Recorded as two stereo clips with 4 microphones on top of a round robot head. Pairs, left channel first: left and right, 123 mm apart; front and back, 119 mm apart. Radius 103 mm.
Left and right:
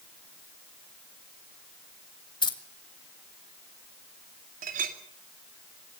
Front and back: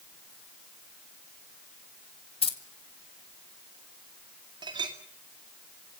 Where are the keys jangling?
40° left, 2.5 m.